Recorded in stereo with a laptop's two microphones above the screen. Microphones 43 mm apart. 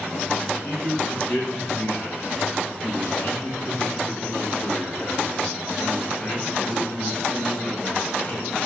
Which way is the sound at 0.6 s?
35° left (ahead or behind).